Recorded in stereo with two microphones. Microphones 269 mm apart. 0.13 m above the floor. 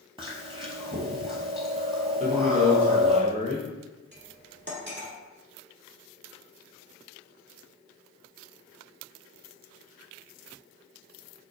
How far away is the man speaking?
About 1.3 m.